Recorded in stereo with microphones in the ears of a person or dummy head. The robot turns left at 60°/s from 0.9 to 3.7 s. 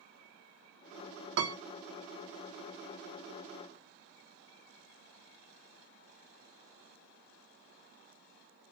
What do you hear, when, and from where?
1.4 s a piano: 80° right, 0.8 m; by 1.6 s 65° right (ahead or behind), 0.8 m